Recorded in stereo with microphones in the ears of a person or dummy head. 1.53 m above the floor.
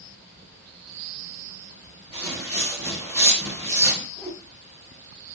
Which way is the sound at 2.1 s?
20° right (ahead or behind).